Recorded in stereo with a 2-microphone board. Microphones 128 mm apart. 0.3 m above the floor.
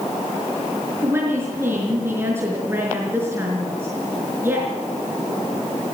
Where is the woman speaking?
20° right (ahead or behind), 5 m.